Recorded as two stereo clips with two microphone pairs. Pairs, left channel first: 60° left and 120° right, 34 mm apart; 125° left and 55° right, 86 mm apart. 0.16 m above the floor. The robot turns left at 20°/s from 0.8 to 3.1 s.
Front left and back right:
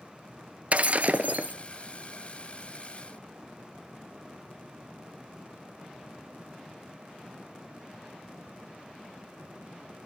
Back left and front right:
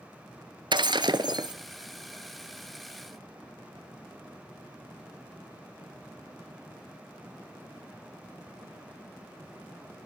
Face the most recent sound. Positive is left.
turn(degrees=-120)